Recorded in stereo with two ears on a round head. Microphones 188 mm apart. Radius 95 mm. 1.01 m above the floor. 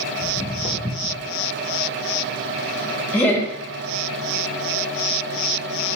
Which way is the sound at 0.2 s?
30° right (ahead or behind).